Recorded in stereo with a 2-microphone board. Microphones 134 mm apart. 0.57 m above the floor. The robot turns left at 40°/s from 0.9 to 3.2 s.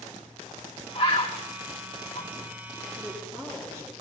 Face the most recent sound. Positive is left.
turn(degrees=-20)  # may be behind; listen again after turning